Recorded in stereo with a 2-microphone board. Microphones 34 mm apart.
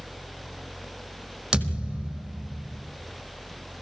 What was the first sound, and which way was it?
A thud, 15° right (ahead or behind).